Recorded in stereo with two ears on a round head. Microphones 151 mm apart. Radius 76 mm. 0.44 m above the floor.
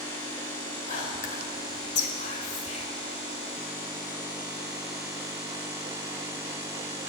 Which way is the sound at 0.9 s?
45° left (ahead or behind).